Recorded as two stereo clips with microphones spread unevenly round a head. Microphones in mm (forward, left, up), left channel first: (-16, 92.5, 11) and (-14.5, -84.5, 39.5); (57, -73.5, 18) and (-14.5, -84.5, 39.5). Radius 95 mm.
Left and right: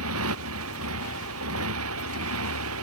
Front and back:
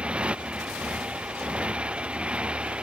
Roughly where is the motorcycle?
Right.